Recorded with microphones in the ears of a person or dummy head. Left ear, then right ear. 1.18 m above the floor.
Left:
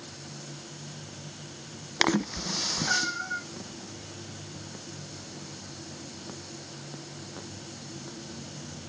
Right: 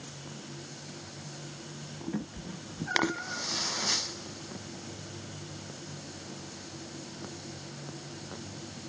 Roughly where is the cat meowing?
Left.